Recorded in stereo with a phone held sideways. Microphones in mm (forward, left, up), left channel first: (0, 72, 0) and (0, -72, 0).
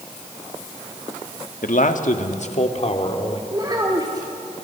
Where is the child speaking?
30° right (ahead or behind), 1.9 m.